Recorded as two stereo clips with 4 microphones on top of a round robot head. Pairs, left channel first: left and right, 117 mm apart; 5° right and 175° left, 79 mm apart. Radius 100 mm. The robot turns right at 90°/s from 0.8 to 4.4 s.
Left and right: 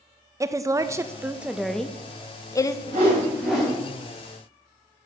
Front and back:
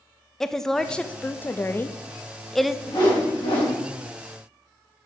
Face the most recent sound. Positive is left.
turn(degrees=75)